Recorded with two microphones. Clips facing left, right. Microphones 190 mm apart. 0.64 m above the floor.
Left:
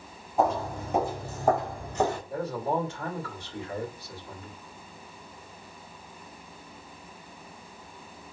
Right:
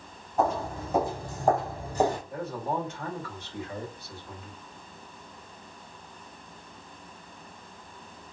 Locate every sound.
0.4 s footsteps: 15° left (ahead or behind), 2 m; by 2.2 s 20° right (ahead or behind), 0.9 m
2.3 s a man speaking: 30° left (ahead or behind), 2.0 m